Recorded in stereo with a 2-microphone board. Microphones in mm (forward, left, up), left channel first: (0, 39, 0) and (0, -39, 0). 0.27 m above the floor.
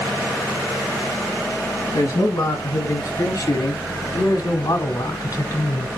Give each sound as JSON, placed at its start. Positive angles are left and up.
{"t": 1.9, "sound": "a man speaking", "side_deg": 40, "distance_m": 3.0}